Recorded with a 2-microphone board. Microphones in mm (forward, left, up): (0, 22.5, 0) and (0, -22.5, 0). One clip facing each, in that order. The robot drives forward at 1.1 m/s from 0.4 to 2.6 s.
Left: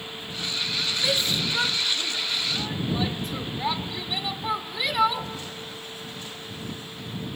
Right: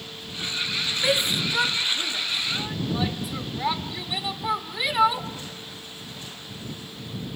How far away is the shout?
About 0.7 m.